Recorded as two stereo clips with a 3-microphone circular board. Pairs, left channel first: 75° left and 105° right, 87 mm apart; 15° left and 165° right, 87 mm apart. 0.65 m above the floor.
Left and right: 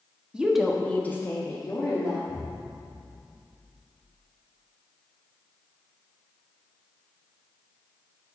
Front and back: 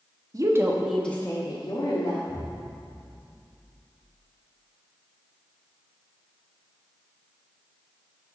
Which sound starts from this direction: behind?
A woman speaking, at 0.3 s.